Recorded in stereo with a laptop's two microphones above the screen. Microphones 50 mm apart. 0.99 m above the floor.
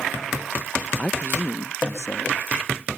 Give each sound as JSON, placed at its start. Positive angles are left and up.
{"t": 1.0, "sound": "a man speaking", "side_deg": 30}